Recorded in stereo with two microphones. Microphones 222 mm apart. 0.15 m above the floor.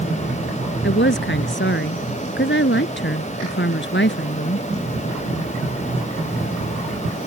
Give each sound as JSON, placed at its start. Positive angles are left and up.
{"t": 0.8, "sound": "a woman speaking", "side_deg": 55}